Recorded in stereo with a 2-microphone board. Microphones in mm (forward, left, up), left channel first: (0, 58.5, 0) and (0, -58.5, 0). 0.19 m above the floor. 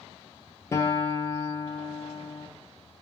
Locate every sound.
0.7 s a guitar: 25° left (ahead or behind), 0.9 m